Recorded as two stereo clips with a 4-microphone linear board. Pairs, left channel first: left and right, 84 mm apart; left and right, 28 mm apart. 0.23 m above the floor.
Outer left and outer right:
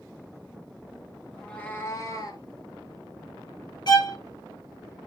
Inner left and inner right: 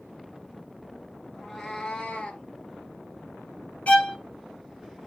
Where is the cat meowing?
5° left (ahead or behind), 0.9 m; by 2.5 s 55° left (ahead or behind), 1.2 m.